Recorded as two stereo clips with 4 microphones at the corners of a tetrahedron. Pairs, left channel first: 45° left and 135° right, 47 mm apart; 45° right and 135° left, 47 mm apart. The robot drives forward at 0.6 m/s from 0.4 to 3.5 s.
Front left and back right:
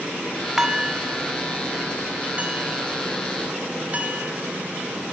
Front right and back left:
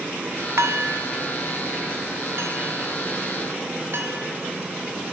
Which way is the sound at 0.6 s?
150° left.